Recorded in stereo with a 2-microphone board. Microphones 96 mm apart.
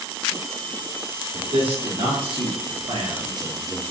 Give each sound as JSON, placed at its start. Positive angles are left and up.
{"t": 1.3, "sound": "a man speaking", "side_deg": -65, "distance_m": 1.9}